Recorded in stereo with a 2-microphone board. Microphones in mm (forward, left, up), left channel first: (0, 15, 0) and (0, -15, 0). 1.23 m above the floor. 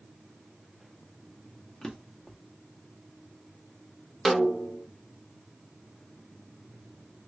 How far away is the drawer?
About 0.7 m.